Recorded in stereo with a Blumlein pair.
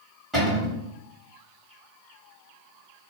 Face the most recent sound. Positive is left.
turn(degrees=-15)